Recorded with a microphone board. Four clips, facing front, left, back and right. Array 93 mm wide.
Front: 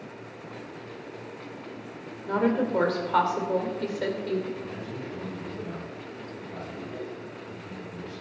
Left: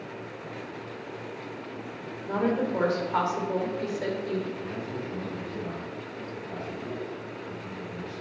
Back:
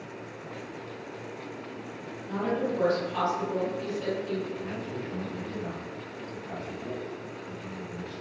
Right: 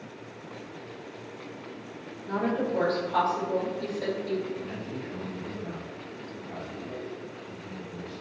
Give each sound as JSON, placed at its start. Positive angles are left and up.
{"t": 2.3, "sound": "a woman speaking", "azimuth_deg": 15, "distance_m": 3.5}
{"t": 4.6, "sound": "a man speaking", "azimuth_deg": 165, "distance_m": 5.0}